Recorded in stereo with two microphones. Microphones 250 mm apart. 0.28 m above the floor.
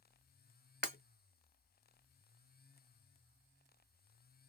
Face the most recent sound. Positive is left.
turn(degrees=-45)  # may be behind; listen again after turning